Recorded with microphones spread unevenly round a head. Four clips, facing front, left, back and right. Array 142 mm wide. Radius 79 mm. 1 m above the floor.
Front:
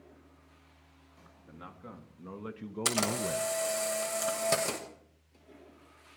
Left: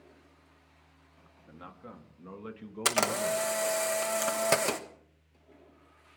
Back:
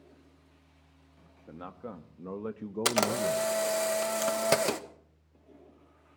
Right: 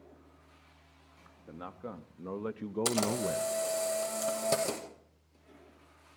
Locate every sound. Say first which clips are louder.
1.5 s a man speaking: right 5 dB, back 6 dB; 145° right, 1.6 m; by 3.5 s 55° right, 0.5 m
2.9 s a camera shutter: left 3 dB, back 4 dB; 170° left, 1.1 m